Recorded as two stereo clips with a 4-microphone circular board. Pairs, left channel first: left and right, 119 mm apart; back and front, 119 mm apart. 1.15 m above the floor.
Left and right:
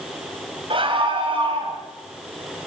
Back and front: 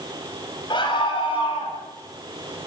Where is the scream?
130° right, 7 m; by 1.8 s 135° right, 8 m.